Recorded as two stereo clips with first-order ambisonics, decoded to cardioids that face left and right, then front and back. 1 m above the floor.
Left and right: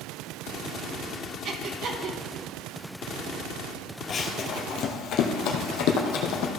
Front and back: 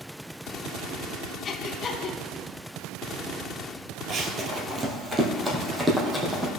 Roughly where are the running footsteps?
Behind left.